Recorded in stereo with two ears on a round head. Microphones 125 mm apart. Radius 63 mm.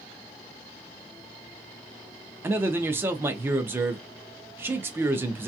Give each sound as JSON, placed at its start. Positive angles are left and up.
{"t": 2.4, "sound": "a man speaking", "side_deg": -15, "distance_m": 0.6}